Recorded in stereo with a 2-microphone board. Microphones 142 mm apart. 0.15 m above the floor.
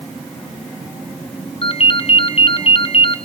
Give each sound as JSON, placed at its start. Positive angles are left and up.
{"t": 1.6, "sound": "a ringtone", "side_deg": 45, "distance_m": 1.4}